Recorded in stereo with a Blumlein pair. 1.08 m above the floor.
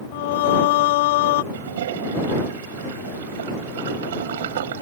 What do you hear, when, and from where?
0.1 s singing: 50° left
1.5 s a toilet flushing: 60° right